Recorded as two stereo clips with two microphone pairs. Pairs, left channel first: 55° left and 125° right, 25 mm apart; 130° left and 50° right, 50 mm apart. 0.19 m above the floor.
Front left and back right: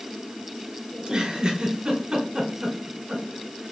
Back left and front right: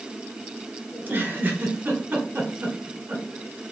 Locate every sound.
0.9 s a giggle: 75° right, 1.1 m